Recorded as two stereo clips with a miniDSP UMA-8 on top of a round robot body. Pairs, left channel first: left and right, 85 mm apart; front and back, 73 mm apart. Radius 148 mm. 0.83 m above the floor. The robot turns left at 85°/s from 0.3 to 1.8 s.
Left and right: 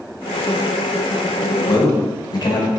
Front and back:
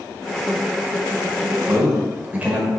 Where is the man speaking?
125° left, 1.4 m; by 2.7 s 115° left, 1.4 m.